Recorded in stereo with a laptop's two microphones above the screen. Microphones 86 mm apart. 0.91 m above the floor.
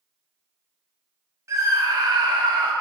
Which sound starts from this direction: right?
A scream, at 1.5 s.